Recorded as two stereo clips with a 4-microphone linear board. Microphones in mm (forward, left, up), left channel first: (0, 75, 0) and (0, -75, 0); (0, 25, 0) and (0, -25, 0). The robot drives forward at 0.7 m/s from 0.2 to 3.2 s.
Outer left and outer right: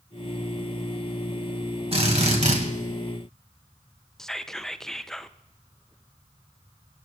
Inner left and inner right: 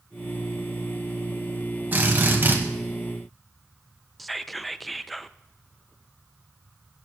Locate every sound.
1.9 s a drill: 40° right (ahead or behind), 2.5 m; by 2.6 s 50° right (ahead or behind), 2 m
4.2 s whispering: centre (ahead or behind), 0.5 m